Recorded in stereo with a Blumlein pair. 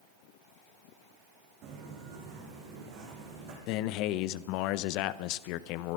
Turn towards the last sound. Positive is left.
turn(degrees=40)